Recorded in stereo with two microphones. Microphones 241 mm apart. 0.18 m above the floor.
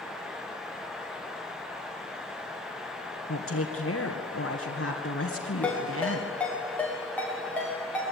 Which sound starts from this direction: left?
A woman speaking, at 3.3 s.